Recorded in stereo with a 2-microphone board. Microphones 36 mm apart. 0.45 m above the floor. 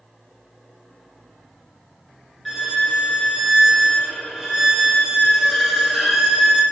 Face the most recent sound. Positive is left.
turn(degrees=0)  # may be behind; listen again after turning